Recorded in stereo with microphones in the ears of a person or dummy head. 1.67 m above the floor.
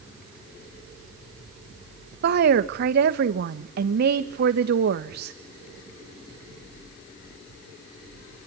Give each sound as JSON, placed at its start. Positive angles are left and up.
{"t": 2.2, "sound": "a woman speaking", "side_deg": -55, "distance_m": 1.6}